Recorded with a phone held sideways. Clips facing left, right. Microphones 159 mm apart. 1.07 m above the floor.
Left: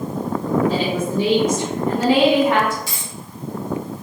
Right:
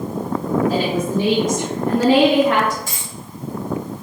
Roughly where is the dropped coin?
Right.